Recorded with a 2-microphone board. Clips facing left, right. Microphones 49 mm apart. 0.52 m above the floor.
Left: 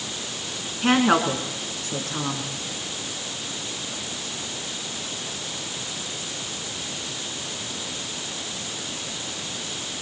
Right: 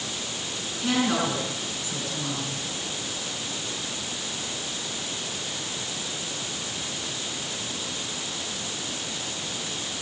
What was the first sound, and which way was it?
A woman speaking, 55° left (ahead or behind).